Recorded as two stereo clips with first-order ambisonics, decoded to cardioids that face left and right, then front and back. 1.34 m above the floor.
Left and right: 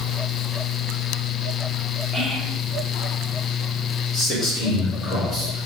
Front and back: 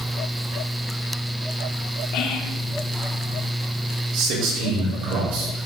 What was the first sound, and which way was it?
Whispering, 10° right.